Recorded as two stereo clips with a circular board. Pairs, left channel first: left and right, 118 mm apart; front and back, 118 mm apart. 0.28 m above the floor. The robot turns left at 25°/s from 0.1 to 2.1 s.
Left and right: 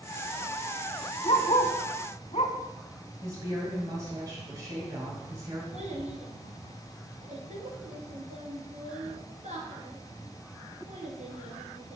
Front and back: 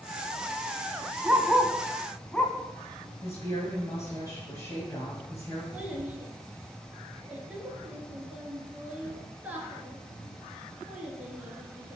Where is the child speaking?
105° right, 2 m.